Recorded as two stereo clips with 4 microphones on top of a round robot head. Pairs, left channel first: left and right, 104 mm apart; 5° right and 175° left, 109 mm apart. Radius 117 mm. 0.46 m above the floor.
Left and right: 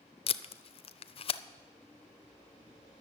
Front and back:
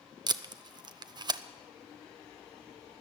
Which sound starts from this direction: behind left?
Tape being pulled, at 0.3 s.